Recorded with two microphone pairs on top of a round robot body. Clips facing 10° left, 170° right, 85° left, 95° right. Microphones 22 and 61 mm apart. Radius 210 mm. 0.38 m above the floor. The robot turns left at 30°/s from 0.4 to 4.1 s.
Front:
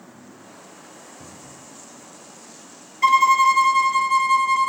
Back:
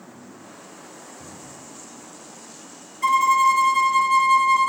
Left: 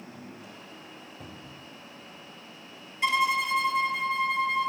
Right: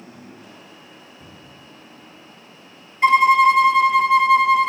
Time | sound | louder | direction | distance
1.2 | a cupboard door | back 1 dB, right 1 dB | 50° left | 1.3 m
3.0 | a violin | front 2 dB, right 13 dB | 45° right | 0.7 m